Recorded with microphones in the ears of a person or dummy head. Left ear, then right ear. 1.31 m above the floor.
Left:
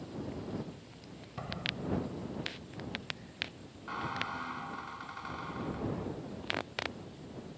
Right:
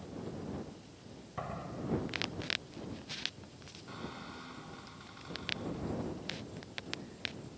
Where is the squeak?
30° left (ahead or behind).